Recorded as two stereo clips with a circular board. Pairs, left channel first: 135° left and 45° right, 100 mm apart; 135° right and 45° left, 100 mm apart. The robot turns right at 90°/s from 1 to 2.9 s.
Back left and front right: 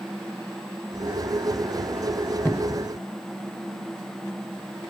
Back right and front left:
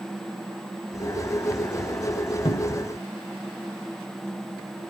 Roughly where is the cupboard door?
Behind right.